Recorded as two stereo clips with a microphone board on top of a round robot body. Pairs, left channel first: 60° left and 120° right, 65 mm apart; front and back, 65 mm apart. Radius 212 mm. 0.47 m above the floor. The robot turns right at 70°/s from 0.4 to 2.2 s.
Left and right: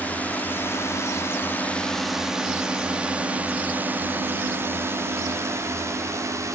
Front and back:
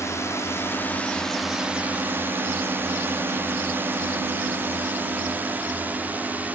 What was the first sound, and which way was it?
A drone, 5° left.